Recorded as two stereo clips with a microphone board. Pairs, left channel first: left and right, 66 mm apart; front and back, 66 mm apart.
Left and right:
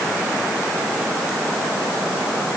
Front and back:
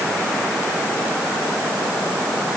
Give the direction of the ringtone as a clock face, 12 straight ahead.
No ringtone in this recording.